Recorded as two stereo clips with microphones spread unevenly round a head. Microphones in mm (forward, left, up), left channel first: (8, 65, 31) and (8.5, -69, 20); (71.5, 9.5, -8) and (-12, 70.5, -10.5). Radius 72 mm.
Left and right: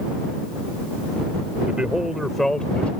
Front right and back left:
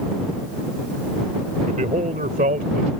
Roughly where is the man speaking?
Behind.